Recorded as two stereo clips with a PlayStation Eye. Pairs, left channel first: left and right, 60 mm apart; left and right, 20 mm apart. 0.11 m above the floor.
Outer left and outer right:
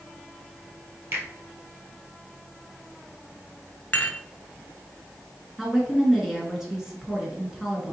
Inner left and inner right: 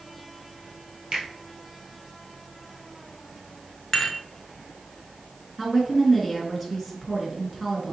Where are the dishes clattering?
25° left (ahead or behind), 0.9 m.